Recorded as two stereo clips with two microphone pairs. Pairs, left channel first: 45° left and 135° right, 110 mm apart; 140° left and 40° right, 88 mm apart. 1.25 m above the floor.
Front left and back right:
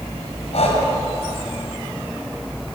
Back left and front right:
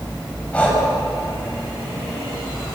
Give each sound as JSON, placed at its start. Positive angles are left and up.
{"t": 0.5, "sound": "breathing", "azimuth_deg": 65, "distance_m": 6.0}